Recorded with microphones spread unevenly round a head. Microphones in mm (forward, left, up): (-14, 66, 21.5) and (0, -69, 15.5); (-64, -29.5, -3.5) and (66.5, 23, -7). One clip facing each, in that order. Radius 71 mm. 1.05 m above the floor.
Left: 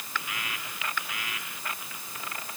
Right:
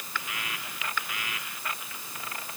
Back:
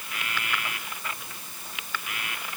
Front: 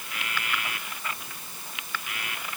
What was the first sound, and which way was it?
Only background noise.